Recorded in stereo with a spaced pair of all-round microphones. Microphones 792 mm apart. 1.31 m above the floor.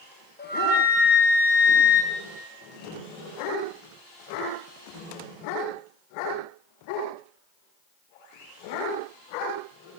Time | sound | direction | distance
0.4 | a flute | 15° left (ahead or behind) | 0.5 m